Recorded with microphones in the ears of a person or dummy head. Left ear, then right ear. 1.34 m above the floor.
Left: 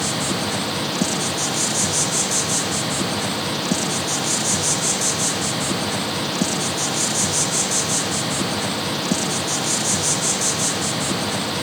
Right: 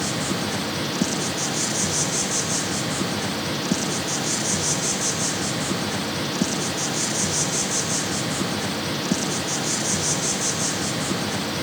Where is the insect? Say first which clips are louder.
Left 3 dB; 20° left (ahead or behind), 0.7 m.